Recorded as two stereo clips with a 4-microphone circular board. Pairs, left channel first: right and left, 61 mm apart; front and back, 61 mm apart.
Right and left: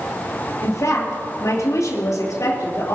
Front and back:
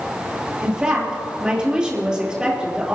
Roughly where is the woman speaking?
Right.